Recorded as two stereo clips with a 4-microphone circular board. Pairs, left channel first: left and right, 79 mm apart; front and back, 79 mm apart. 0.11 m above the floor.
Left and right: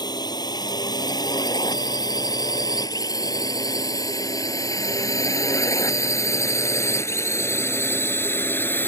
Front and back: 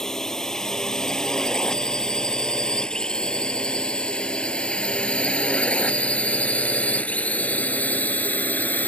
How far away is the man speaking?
No man speaking in this recording.